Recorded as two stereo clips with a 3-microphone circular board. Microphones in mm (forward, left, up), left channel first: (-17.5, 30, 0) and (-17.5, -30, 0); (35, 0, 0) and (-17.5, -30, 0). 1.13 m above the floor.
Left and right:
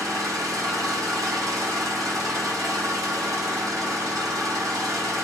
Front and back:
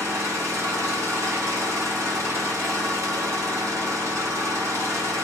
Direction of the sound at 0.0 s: 110° right.